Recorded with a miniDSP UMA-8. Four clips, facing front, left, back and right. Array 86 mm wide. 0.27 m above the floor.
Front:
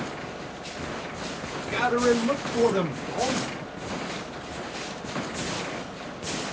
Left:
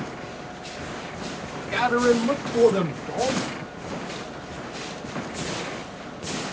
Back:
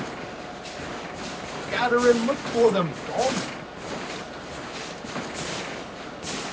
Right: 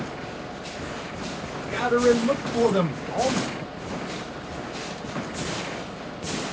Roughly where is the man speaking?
Behind left.